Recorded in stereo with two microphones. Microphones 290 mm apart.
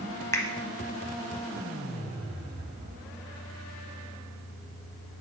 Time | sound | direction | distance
0.3 | a finger snap | 10° left (ahead or behind) | 0.8 m